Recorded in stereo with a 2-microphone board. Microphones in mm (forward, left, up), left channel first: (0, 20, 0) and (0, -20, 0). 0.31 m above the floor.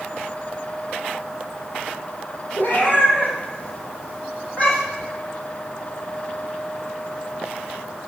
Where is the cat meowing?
50° left (ahead or behind), 4.5 m; by 5.1 s 30° left (ahead or behind), 6 m.